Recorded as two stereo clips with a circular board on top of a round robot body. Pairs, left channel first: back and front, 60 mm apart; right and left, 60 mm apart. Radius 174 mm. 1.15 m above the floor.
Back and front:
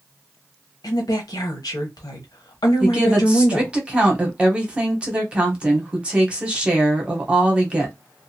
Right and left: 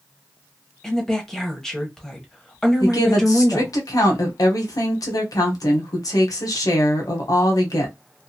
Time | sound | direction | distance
0.8 | a woman speaking | 175° right | 0.7 m
2.8 | a woman speaking | 70° right | 0.9 m